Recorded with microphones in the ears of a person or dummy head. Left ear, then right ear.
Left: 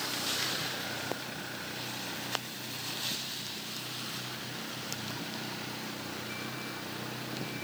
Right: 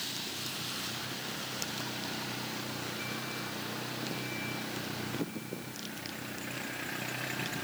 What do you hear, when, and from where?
Only background noise.